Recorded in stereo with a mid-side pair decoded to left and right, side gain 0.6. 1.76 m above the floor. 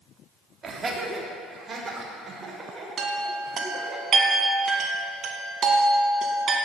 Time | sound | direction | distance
0.6 | laughter | 30° right | 3 m
3.0 | a chime | 45° right | 3 m